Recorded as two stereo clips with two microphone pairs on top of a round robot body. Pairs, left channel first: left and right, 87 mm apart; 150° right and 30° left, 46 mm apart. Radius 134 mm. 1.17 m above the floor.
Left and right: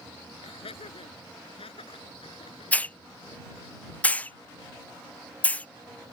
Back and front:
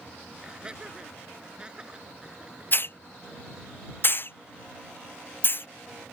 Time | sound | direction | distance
0.4 | laughter | 100° left | ?
2.7 | a hiss | 165° left | ?